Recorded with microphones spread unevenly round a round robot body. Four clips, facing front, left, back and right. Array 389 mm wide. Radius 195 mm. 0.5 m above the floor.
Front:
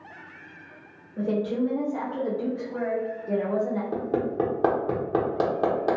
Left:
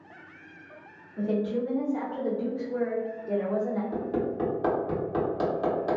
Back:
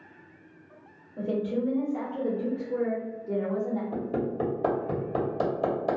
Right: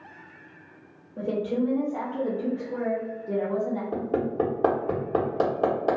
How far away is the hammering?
About 1.3 m.